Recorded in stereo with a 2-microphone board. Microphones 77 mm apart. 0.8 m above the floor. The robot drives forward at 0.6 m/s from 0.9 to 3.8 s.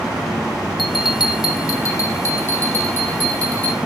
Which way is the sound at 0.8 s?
75° left (ahead or behind).